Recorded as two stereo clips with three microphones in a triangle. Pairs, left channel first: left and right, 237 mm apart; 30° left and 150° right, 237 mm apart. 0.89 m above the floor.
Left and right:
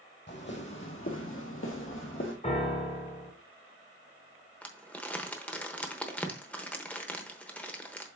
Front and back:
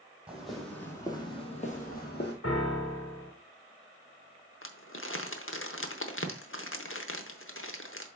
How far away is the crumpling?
About 0.9 m.